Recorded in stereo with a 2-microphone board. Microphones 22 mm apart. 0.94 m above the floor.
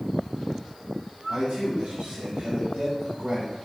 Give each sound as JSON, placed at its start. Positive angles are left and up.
{"t": 1.3, "sound": "a man speaking", "side_deg": -75, "distance_m": 1.8}